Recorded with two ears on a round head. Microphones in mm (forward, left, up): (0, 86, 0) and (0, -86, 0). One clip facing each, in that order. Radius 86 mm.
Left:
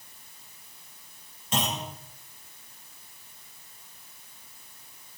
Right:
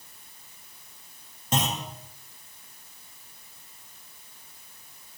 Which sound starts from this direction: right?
A clunk, at 1.5 s.